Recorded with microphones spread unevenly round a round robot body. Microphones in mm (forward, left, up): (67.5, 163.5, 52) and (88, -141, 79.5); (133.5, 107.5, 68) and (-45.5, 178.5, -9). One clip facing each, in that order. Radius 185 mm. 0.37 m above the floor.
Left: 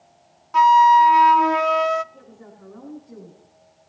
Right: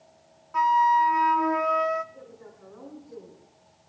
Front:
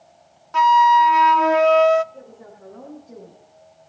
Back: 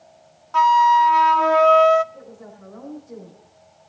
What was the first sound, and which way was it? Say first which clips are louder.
A flute: left 8 dB, front 1 dB; 55° left.